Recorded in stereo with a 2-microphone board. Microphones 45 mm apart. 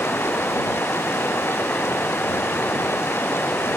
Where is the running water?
60° left (ahead or behind).